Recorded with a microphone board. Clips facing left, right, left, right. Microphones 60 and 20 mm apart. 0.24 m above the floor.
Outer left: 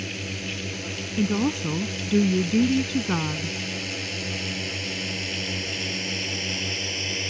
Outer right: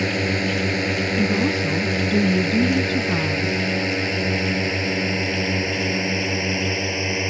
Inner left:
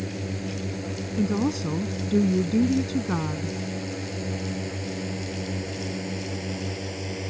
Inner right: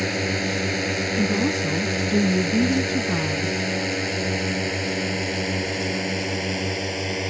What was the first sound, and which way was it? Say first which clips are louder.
A drone: outer right 11 dB, inner right 9 dB; 70° right (ahead or behind).